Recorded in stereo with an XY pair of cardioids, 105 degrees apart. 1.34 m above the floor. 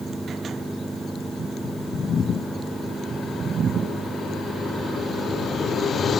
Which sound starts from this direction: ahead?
A machine running, at 0.0 s.